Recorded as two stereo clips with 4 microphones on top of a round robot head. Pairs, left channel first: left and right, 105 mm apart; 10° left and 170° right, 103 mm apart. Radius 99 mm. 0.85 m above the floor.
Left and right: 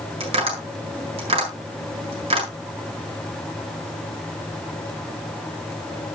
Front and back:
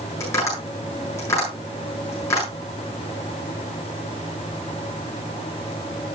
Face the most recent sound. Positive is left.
turn(degrees=-60)